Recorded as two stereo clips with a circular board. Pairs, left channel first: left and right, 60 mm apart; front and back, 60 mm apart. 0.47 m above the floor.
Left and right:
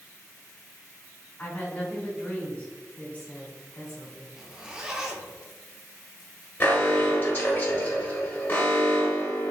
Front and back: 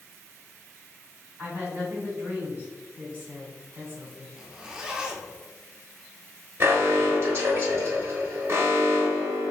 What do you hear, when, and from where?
1.4 s a woman speaking: 140° left, 1.7 m
4.4 s a zipper: 140° right, 0.5 m
6.6 s an alarm: 140° left, 1.2 m